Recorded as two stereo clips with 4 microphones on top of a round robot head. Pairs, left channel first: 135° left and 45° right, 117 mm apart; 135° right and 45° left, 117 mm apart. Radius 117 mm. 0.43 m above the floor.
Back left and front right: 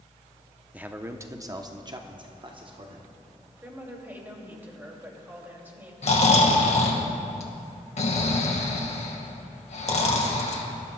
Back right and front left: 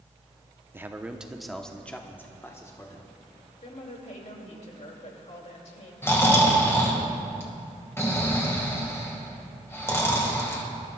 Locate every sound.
0.7 s a man speaking: 15° left, 0.9 m; by 3.1 s 75° right, 1.4 m
3.6 s a woman speaking: 120° right, 2.5 m
6.0 s snoring: 155° left, 1.8 m